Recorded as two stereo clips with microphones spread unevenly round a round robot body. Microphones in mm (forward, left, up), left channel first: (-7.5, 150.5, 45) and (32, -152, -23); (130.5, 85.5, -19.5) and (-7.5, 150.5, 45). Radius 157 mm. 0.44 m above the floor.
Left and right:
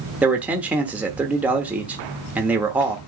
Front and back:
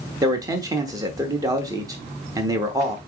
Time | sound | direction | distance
0.2 | a man speaking | 105° right | 0.9 m